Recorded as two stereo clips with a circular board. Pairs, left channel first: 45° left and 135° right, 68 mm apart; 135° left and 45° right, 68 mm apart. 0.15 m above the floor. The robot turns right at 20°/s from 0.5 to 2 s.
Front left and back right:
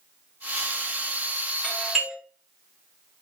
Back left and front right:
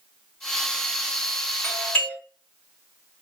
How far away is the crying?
No crying in this recording.